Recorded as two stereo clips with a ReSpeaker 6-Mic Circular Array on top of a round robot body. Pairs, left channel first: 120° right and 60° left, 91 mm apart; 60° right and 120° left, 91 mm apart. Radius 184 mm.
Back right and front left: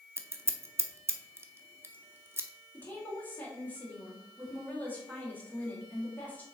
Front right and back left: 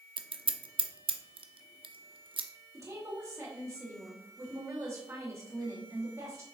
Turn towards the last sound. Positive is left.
turn(degrees=170)